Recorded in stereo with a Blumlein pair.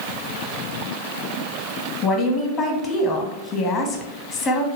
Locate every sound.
2.0 s a woman speaking: 25° left, 1.0 m